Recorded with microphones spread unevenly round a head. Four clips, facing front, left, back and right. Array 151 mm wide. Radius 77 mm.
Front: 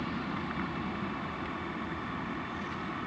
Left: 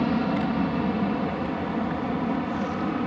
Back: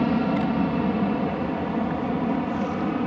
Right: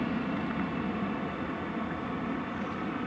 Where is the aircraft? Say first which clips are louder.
Left 8 dB, back 13 dB; 150° left.